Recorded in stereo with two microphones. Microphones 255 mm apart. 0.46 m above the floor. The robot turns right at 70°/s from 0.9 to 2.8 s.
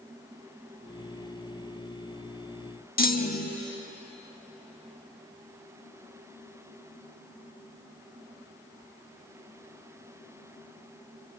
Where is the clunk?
35° left (ahead or behind), 0.7 m.